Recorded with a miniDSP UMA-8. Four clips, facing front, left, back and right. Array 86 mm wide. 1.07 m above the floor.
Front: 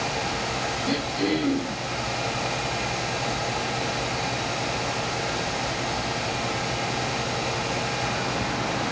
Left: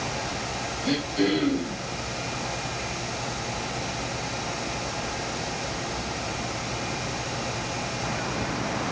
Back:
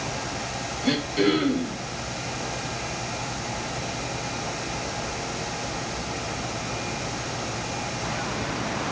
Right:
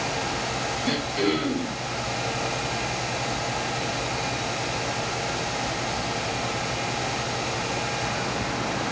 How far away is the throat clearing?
About 6.5 m.